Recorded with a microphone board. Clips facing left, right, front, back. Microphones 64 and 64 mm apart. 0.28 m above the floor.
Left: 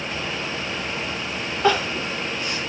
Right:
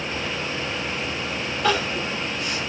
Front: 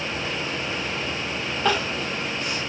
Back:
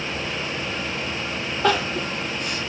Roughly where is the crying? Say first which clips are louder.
Left 3 dB, back 3 dB; behind left.